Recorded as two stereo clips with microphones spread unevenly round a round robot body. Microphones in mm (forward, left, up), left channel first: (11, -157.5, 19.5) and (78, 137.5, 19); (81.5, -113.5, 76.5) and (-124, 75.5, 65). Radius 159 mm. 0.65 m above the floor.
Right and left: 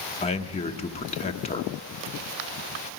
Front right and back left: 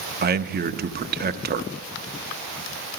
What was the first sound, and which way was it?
A man speaking, 170° right.